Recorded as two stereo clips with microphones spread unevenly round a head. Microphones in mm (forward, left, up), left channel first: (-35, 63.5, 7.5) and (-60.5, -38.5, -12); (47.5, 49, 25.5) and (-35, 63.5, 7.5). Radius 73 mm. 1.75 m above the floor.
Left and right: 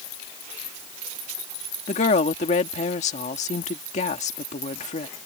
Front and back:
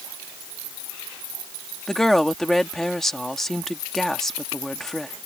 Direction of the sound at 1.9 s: 70° left.